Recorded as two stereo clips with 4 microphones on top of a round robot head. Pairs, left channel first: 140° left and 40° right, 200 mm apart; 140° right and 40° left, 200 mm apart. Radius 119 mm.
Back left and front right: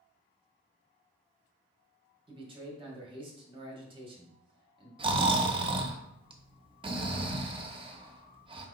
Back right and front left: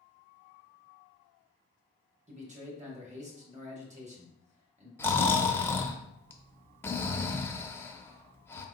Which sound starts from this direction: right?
Snoring, at 5.0 s.